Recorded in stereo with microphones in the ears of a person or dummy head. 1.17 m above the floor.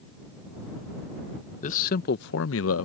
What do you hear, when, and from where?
1.6 s a man speaking: 35° left (ahead or behind); by 2.9 s 70° left (ahead or behind)